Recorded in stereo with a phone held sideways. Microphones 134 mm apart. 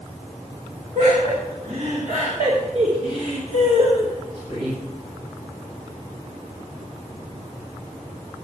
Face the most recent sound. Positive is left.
turn(degrees=-40)  # may be behind; listen again after turning